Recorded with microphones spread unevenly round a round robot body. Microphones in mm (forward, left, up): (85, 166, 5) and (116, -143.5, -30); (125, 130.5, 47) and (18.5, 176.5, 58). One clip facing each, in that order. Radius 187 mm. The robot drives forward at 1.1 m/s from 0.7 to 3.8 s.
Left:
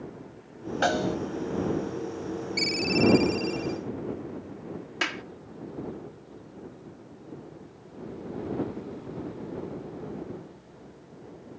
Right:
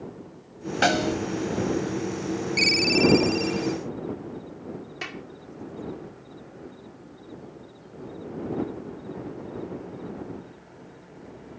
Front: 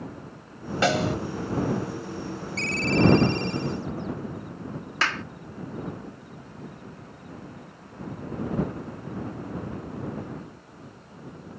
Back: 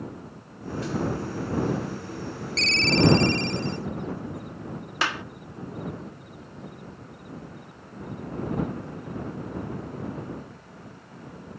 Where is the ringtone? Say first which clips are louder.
Right 2 dB, even; 160° right; by 3.8 s 170° right.